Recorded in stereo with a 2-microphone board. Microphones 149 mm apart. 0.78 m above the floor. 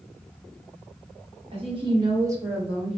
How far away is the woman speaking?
About 1.1 m.